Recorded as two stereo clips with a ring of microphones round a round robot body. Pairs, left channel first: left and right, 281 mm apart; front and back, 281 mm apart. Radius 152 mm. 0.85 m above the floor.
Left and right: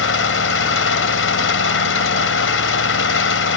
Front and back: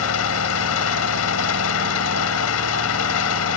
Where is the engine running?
45° left.